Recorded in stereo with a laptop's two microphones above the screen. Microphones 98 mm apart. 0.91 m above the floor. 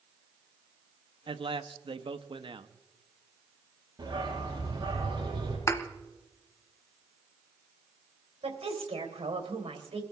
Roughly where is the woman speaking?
Right.